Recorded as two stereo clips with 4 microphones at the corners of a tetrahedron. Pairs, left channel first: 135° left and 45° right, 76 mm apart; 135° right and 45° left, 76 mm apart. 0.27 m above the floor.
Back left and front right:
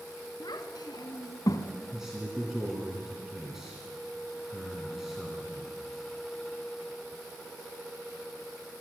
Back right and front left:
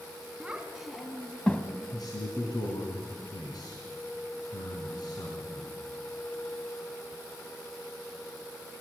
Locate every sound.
0.4 s a child speaking: 125° left, 2.5 m; by 1.7 s 160° left, 1.5 m
1.9 s a man speaking: 130° right, 2.5 m